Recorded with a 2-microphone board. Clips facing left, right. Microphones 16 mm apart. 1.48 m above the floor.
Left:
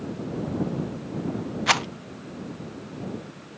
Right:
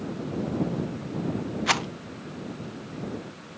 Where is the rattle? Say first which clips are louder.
Left 3 dB; 15° left (ahead or behind).